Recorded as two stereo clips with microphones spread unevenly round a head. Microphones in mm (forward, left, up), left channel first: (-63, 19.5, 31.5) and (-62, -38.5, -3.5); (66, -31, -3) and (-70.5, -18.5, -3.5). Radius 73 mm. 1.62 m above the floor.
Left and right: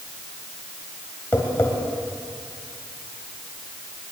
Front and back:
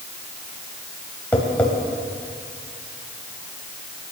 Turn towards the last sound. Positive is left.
turn(degrees=75)